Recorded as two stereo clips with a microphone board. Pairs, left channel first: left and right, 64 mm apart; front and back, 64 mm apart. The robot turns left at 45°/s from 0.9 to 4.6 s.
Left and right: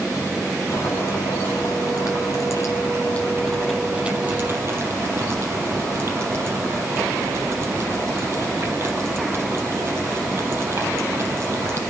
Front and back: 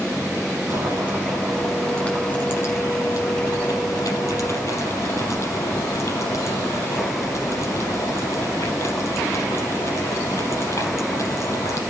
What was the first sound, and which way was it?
Boiling, 125° left.